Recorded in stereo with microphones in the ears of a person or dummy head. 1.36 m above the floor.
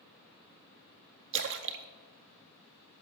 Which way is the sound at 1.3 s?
55° right (ahead or behind).